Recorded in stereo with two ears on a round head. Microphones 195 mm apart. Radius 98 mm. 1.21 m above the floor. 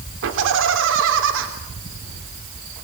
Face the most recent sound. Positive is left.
turn(degrees=-65)  # may be behind; listen again after turning